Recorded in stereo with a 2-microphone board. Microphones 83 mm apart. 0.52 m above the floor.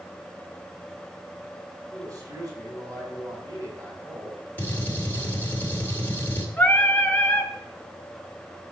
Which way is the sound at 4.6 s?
25° left (ahead or behind).